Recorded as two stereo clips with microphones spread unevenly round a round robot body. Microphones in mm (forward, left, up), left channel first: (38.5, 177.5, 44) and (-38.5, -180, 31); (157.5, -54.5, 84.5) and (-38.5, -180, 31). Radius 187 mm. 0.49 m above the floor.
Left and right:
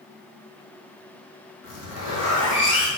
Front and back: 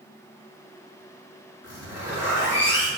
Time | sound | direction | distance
1.6 | a zipper | 30° left | 2 m